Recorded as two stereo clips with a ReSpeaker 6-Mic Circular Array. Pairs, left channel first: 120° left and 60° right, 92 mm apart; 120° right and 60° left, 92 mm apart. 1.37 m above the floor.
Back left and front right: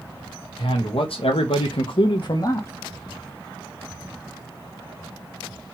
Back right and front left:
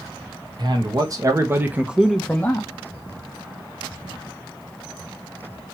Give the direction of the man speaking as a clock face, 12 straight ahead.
9 o'clock.